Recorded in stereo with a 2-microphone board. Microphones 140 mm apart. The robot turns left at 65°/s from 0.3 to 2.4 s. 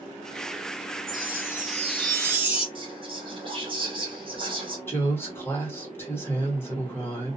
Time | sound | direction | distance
1.1 | a chime | 85° right | 0.9 m
2.8 | whispering | 40° right (ahead or behind) | 1.4 m
4.9 | a woman speaking | 15° left (ahead or behind) | 1.4 m